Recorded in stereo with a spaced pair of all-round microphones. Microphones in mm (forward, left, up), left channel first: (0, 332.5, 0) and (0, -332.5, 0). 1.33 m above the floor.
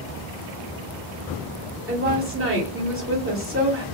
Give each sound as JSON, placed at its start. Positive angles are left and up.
{"t": 1.9, "sound": "a woman speaking", "side_deg": -20, "distance_m": 1.6}